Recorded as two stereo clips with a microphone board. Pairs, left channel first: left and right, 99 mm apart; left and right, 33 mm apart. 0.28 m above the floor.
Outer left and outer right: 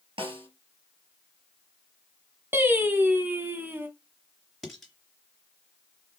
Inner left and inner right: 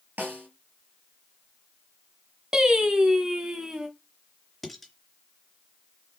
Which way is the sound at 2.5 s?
20° right (ahead or behind).